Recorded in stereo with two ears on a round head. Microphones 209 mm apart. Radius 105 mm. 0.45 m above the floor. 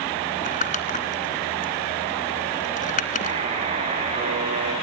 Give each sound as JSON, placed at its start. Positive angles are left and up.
{"t": 0.4, "sound": "crumpling", "side_deg": 35, "distance_m": 2.5}
{"t": 3.2, "sound": "a buzzer", "side_deg": -25, "distance_m": 4.0}